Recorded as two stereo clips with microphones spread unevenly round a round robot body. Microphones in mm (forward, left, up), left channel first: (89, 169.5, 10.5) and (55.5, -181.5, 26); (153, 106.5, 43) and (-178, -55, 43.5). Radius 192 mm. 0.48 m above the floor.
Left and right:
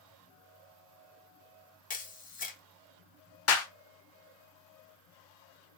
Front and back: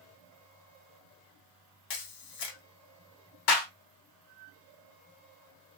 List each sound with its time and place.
1.9 s a camera shutter: 20° left, 1.0 m
3.5 s a clap: 40° left, 1.1 m